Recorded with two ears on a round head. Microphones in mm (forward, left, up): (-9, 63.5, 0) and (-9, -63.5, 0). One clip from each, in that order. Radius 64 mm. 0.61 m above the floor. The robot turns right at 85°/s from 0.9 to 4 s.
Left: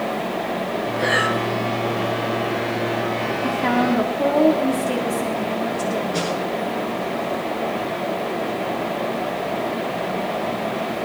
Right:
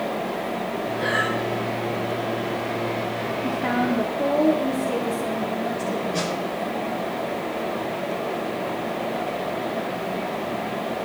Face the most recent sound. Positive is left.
turn(degrees=15)  # may be behind; listen again after turning